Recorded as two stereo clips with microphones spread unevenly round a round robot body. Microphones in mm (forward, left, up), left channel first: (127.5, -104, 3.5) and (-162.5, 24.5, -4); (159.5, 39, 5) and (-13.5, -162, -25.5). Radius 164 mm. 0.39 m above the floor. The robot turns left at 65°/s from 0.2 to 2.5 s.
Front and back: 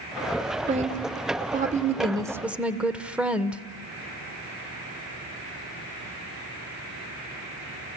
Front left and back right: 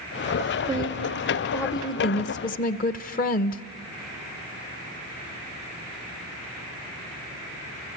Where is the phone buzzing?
No phone buzzing in this recording.